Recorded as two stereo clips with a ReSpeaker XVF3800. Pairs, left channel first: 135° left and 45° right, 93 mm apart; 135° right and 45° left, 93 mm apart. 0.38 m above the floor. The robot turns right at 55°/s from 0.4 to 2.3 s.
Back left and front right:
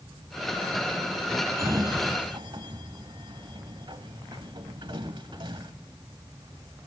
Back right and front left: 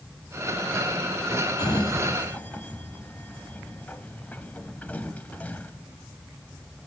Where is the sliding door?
100° right, 1.2 m; by 5.7 s 65° right, 1.2 m.